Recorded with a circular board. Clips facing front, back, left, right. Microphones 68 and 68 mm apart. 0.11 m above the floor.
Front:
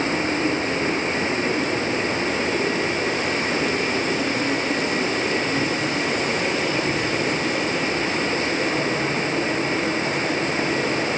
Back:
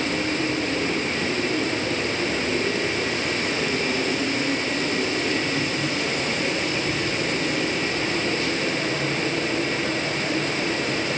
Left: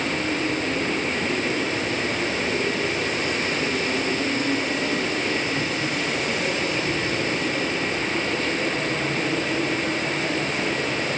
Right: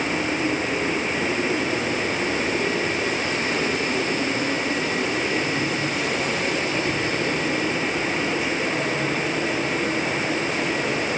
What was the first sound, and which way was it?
Only background noise.